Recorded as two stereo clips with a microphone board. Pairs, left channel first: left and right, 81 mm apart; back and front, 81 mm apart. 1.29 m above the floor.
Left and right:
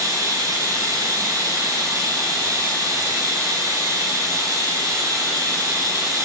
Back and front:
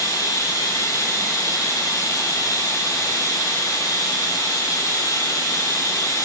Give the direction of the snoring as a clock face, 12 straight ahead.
I don't hear snoring.